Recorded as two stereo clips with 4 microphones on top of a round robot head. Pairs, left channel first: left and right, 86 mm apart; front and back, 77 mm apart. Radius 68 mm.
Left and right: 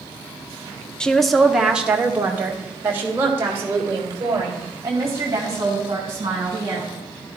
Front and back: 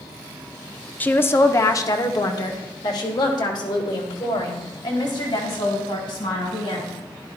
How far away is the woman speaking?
About 0.7 m.